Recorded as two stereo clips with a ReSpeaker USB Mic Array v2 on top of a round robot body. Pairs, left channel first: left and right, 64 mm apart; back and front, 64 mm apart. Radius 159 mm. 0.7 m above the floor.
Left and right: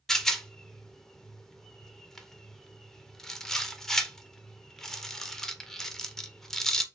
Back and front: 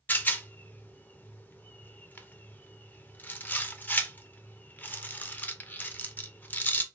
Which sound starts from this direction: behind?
A rattle, at 0.1 s.